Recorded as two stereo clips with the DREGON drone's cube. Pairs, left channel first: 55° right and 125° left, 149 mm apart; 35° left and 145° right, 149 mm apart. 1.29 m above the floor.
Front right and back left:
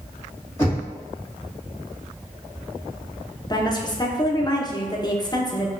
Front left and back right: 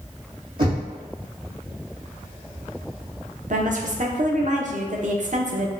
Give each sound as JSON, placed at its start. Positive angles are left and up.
{"t": 0.6, "sound": "knocking", "azimuth_deg": -130, "distance_m": 1.8}
{"t": 3.5, "sound": "a woman speaking", "azimuth_deg": -115, "distance_m": 0.6}